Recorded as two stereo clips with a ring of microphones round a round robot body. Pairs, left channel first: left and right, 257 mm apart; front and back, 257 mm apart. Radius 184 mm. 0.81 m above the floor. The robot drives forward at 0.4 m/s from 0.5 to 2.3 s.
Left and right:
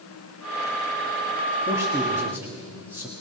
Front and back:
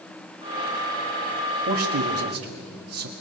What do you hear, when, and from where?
1.7 s a man speaking: 170° right, 1.6 m